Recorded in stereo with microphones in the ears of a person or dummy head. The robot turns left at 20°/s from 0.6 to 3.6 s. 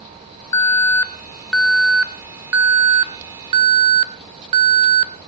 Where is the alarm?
20° left, 1.0 m; by 5.1 s 40° right, 1.0 m.